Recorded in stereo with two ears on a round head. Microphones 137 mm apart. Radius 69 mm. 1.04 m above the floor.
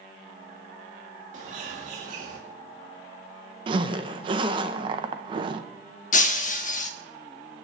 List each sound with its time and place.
1.3 s a bird: 50° right (ahead or behind), 2.5 m
3.7 s a zipper: 30° right (ahead or behind), 0.8 m
6.1 s breaking glass: 55° left (ahead or behind), 1.0 m